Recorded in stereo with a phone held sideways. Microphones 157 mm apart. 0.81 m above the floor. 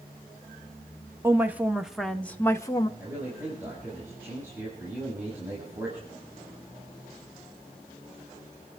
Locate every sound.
1.2 s a woman speaking: 15° right (ahead or behind), 1.3 m; by 2.9 s 25° left (ahead or behind), 1.0 m
3.0 s a man speaking: 15° right (ahead or behind), 6 m